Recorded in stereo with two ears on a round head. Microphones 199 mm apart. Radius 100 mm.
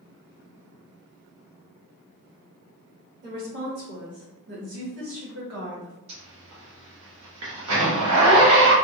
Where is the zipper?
70° right (ahead or behind), 1.2 m.